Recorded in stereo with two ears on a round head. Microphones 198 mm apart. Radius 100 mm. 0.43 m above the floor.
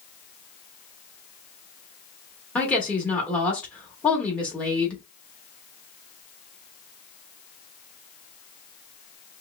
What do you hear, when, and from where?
2.5 s a woman speaking: 5° left (ahead or behind), 1.2 m